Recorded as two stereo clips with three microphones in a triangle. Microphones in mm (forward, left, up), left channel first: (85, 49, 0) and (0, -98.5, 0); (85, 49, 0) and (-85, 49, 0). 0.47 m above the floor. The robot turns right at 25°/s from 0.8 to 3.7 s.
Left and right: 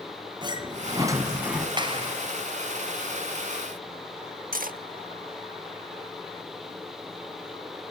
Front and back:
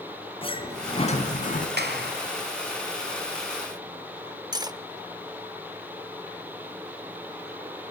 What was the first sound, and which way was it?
A sliding door, 55° right.